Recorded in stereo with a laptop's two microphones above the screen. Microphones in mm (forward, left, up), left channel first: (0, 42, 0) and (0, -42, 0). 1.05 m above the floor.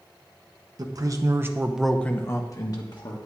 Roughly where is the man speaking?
Right.